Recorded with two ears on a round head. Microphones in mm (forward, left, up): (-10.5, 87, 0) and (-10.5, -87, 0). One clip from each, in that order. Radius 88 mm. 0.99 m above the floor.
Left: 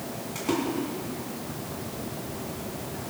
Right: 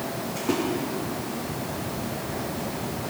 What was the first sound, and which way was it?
A splash, 55° left (ahead or behind).